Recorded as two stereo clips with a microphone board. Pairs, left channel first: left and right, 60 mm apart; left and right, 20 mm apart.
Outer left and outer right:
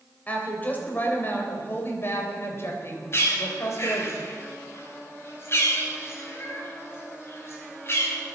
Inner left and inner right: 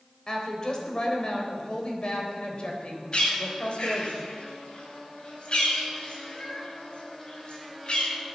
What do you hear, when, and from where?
0.3 s a woman speaking: 25° left (ahead or behind), 4 m; by 4.1 s 55° left (ahead or behind), 4 m
3.1 s a bird: 45° left (ahead or behind), 4.5 m